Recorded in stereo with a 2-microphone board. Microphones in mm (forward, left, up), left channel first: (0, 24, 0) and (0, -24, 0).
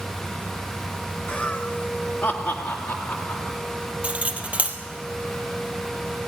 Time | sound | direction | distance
1.3 | laughter | 20° left (ahead or behind) | 1.4 m
4.0 | cutlery clinking | 30° right (ahead or behind) | 2 m